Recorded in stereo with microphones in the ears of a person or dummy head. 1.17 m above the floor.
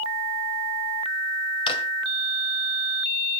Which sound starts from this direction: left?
A drawer, at 1.7 s.